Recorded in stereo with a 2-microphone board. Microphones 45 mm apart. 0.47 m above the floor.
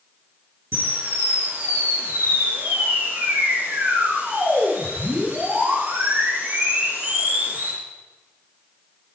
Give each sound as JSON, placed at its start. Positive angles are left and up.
{"t": 0.7, "sound": "a camera shutter", "side_deg": -60, "distance_m": 5.5}